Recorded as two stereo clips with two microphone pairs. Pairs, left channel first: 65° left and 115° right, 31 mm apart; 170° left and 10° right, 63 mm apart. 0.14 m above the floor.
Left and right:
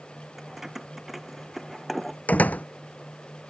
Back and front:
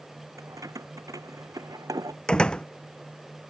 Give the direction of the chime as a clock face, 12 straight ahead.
No chime in this recording.